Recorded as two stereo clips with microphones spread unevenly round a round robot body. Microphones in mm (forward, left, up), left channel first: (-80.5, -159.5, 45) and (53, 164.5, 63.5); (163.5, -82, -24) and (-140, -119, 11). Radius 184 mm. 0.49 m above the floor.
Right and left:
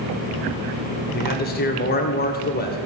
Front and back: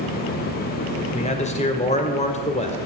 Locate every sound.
1.1 s a man speaking: 55° right, 2 m